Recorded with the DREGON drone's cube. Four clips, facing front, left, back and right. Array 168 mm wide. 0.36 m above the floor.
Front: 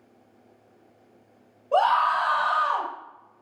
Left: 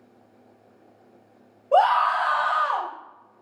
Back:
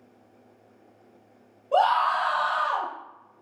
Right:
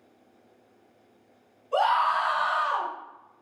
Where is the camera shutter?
No camera shutter in this recording.